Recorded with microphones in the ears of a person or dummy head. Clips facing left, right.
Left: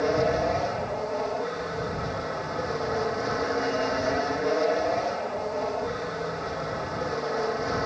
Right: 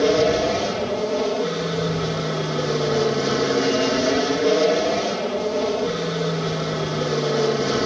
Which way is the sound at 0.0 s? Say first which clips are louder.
Right 6 dB; 45° right (ahead or behind).